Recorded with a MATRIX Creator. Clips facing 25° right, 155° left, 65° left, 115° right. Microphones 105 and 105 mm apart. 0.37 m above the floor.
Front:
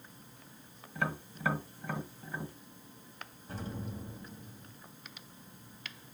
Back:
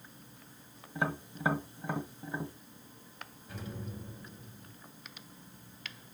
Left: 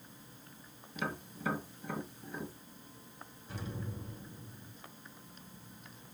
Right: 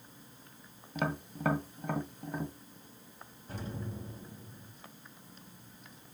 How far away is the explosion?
About 1.8 m.